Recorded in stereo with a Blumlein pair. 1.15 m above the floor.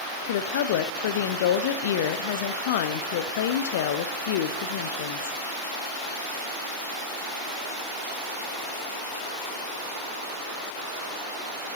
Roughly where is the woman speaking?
Ahead left.